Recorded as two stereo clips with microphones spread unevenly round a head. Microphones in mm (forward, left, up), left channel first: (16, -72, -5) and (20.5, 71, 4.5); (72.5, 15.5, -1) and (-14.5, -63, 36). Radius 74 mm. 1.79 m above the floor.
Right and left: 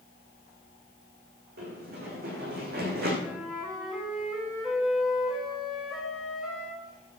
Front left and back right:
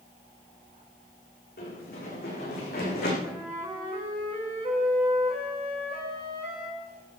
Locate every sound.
1.6 s running footsteps: 70° left, 8 m
3.2 s a flute: 175° left, 2.5 m